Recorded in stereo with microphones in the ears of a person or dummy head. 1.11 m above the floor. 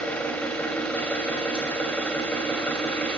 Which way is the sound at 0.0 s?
5° left (ahead or behind).